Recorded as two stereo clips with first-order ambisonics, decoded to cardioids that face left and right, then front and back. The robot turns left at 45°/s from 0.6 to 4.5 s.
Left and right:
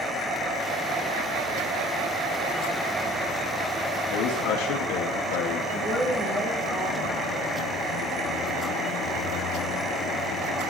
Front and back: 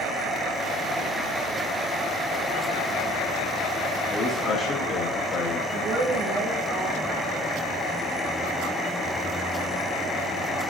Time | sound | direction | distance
4.1 | a man speaking | 90° left | 0.8 m
5.7 | a woman speaking | 135° right | 1.9 m